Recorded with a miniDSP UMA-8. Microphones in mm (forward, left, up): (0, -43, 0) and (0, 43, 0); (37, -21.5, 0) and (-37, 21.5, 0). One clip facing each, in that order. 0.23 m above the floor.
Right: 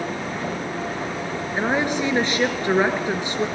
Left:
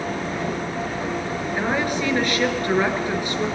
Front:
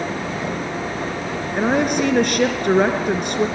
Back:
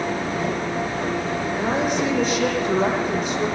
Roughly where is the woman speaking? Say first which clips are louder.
Right 2 dB, front 5 dB; ahead.